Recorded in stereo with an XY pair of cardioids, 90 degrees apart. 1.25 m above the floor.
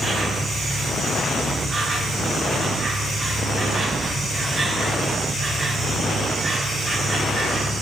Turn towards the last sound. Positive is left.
turn(degrees=-40)